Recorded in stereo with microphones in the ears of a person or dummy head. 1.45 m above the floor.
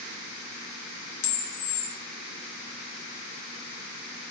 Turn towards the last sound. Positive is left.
turn(degrees=85)